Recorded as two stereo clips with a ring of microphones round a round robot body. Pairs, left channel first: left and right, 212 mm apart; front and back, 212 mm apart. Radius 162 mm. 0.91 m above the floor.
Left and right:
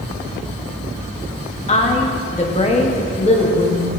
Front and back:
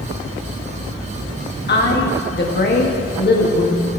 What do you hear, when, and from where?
1.7 s a woman speaking: 35° left, 1.9 m